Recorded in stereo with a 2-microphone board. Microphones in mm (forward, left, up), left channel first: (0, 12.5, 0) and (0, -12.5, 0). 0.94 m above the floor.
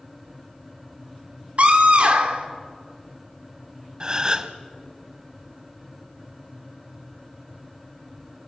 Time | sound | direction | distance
1.6 | a scream | 55° right (ahead or behind) | 2.5 m
4.0 | a gasp | 30° right (ahead or behind) | 1.1 m